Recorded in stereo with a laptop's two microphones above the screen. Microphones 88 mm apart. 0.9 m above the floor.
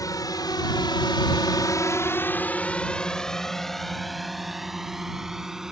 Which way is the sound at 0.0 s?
45° left (ahead or behind).